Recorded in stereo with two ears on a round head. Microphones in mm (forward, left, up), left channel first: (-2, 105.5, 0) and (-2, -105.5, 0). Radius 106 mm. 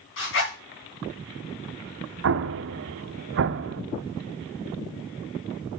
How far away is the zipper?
About 3.5 m.